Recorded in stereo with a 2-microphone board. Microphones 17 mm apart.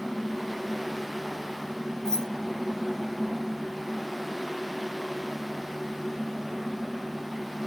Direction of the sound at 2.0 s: 25° left (ahead or behind).